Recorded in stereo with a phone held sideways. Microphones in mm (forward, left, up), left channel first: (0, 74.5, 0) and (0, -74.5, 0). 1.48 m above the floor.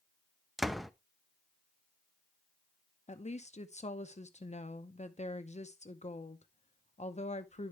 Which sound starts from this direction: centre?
A door slam, at 0.6 s.